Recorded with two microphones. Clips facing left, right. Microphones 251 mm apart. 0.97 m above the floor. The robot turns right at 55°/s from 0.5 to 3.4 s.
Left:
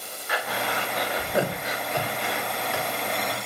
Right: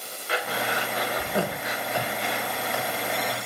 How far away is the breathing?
About 3.5 m.